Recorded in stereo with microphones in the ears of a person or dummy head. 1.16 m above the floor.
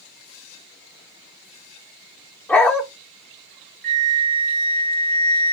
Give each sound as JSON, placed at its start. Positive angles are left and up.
{"t": 2.5, "sound": "a dog barking", "side_deg": 10, "distance_m": 0.9}
{"t": 3.8, "sound": "a flute", "side_deg": -60, "distance_m": 2.5}